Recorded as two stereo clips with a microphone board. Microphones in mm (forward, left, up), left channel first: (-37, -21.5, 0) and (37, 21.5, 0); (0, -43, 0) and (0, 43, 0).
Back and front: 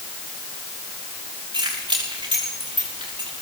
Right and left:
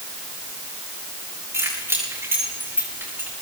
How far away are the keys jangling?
About 8.5 m.